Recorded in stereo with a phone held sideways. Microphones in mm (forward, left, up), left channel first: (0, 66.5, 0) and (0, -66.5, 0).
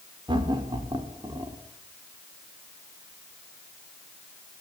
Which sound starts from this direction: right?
Laughter, at 0.3 s.